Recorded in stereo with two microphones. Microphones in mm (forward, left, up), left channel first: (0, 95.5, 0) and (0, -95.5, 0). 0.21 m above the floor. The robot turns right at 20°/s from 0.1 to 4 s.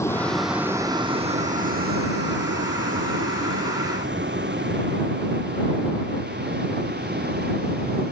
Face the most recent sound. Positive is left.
turn(degrees=-55)  # may be behind; listen again after turning